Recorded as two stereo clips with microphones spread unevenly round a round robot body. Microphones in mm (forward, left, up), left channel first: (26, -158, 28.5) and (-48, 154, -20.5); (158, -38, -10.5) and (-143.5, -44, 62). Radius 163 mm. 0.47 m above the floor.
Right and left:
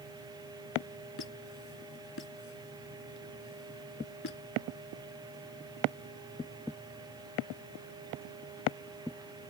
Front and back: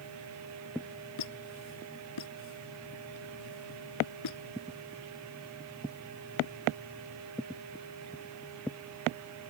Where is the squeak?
20° right.